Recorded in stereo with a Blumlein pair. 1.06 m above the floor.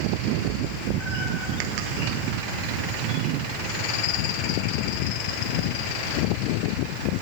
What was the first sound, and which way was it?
A cat meowing, 15° right.